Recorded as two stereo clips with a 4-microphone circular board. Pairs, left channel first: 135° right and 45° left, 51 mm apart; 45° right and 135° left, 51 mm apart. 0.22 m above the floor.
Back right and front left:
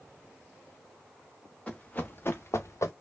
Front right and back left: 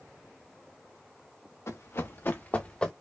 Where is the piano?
I don't hear a piano.